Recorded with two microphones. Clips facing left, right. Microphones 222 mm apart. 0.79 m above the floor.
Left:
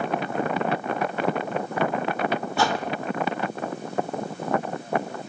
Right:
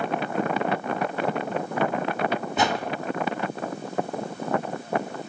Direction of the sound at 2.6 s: 20° right (ahead or behind).